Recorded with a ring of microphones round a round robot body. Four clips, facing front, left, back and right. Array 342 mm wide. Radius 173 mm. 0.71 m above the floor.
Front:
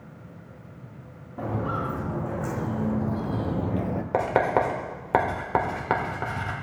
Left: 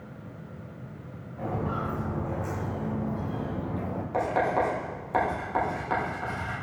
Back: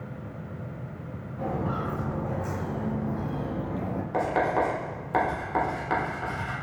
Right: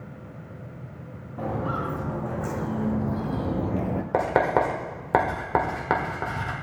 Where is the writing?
55° right, 1.7 m.